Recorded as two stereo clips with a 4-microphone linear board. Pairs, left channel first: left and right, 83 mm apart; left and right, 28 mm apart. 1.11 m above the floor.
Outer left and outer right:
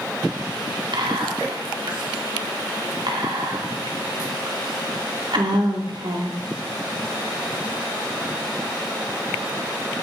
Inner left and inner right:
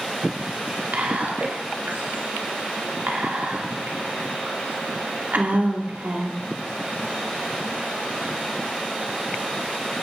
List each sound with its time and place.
0.9 s whispering: 75° right (ahead or behind), 2 m